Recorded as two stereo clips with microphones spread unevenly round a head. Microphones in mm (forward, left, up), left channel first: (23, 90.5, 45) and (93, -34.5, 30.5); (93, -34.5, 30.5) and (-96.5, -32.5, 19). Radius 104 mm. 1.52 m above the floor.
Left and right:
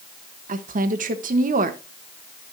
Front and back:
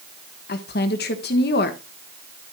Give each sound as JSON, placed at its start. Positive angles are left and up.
{"t": 0.5, "sound": "a woman speaking", "azimuth_deg": -35, "distance_m": 1.3}